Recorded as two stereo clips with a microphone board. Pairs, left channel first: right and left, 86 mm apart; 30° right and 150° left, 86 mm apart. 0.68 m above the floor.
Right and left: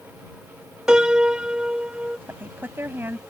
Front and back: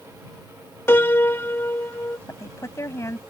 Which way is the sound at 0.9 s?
15° left.